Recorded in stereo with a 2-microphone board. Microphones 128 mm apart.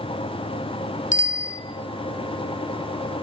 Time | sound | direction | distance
1.1 | a bicycle bell | 80° left | 3 m